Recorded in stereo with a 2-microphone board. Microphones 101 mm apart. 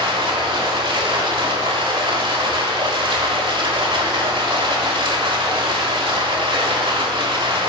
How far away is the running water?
About 1.1 m.